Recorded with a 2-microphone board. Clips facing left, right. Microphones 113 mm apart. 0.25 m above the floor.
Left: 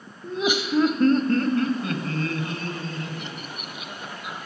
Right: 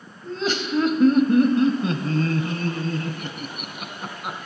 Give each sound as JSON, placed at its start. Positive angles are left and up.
{"t": 0.2, "sound": "laughter", "side_deg": 20, "distance_m": 0.9}